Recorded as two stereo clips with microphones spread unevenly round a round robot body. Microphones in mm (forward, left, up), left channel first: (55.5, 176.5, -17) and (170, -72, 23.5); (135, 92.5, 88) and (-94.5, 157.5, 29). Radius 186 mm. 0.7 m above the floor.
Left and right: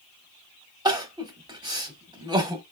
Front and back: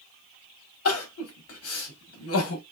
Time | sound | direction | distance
0.8 | crying | 10° left | 1.0 m